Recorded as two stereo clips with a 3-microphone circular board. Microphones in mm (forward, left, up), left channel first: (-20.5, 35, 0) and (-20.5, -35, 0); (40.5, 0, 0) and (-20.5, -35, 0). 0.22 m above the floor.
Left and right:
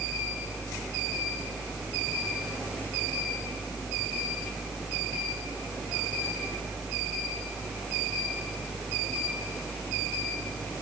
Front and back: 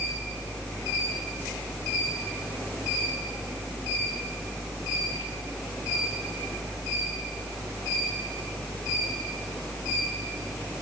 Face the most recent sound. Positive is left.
No sound to turn to.